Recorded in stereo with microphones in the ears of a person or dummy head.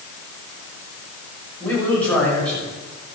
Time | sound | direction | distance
1.6 | a man speaking | 5° left (ahead or behind) | 7.5 m